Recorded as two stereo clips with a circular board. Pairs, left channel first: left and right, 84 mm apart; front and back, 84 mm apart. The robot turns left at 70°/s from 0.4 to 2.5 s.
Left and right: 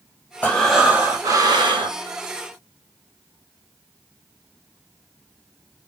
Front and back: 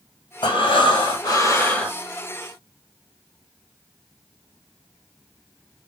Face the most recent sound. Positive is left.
turn(degrees=-130)